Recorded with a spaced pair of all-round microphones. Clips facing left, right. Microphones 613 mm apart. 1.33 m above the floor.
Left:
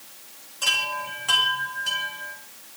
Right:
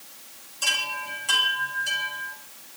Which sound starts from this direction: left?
A chime, at 0.6 s.